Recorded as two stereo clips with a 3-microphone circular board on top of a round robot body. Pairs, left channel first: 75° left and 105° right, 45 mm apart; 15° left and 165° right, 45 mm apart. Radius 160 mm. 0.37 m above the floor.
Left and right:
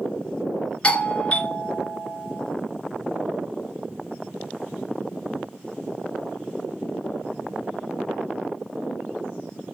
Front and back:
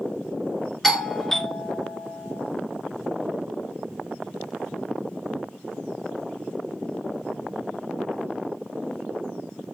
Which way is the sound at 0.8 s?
95° left.